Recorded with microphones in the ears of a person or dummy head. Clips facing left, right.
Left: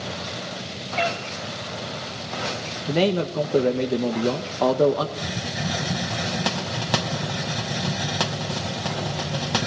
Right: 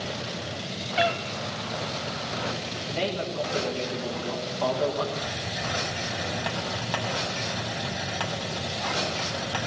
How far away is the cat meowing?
About 2 m.